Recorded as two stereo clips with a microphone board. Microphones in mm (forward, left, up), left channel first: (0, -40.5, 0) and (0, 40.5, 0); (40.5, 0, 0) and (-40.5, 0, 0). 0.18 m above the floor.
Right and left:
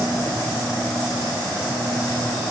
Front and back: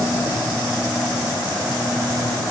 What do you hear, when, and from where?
Only background noise.